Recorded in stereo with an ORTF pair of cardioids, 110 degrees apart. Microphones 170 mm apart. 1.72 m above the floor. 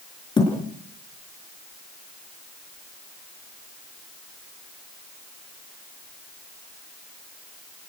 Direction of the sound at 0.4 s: 30° left.